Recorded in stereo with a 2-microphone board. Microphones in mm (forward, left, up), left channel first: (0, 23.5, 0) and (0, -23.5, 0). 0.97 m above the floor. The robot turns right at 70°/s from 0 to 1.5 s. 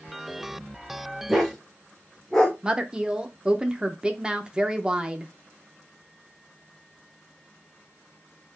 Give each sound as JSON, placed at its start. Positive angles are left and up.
{"t": 1.3, "sound": "a dog barking", "side_deg": -5, "distance_m": 1.2}
{"t": 2.6, "sound": "a woman speaking", "side_deg": -20, "distance_m": 0.5}